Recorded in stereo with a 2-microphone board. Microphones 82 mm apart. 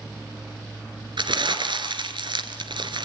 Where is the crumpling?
70° right (ahead or behind), 2 m.